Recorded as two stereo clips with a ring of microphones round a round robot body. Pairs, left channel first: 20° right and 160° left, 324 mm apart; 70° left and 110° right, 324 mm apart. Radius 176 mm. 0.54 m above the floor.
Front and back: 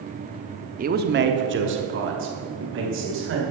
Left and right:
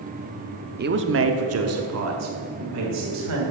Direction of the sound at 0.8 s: 155° right.